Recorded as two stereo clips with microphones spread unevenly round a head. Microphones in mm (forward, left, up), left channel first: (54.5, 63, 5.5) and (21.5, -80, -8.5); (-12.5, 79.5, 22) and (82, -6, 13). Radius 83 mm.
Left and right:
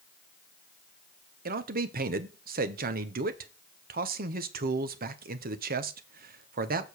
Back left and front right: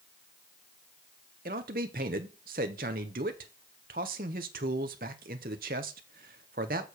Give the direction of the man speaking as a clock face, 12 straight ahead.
3 o'clock.